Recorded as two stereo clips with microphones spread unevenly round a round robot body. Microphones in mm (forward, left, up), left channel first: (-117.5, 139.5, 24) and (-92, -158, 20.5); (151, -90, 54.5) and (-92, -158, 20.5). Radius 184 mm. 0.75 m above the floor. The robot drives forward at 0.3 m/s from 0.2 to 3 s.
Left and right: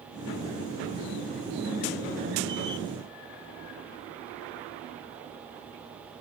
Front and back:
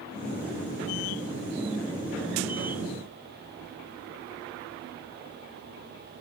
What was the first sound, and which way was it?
Only background noise.